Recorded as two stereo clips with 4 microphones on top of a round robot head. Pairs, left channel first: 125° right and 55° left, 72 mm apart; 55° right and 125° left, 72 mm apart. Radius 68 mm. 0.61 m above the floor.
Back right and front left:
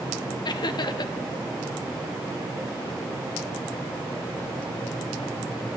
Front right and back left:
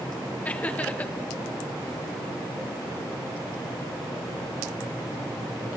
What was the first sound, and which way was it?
Laughter, 125° right.